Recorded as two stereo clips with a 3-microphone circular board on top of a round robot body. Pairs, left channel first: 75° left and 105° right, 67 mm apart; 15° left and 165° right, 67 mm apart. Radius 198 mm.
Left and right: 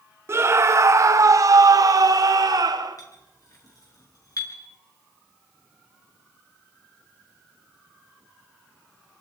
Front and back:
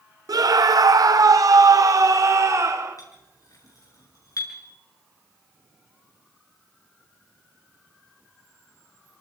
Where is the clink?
45° left, 7.5 m.